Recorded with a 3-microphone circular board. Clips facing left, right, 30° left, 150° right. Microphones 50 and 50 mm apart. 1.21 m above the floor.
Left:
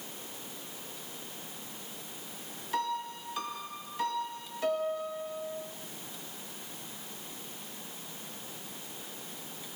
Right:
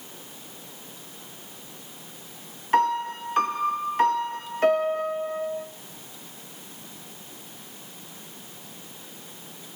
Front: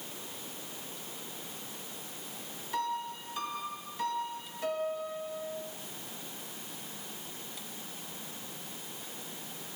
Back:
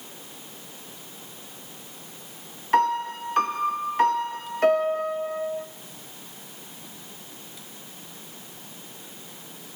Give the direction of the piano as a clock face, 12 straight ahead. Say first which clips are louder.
Right 11 dB, back 13 dB; 4 o'clock.